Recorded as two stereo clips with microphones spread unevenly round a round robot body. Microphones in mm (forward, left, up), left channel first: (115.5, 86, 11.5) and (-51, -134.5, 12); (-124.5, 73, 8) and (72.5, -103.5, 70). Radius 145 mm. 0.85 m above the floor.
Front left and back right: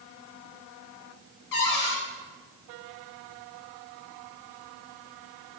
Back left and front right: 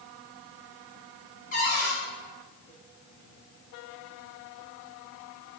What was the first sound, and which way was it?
A cupboard door, 80° left.